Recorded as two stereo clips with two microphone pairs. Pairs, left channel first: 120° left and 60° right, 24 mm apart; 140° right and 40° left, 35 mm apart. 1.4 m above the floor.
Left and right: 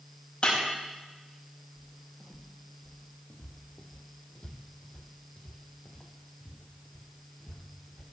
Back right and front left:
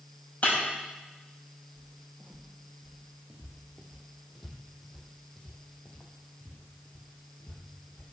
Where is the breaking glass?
165° left, 5.5 m.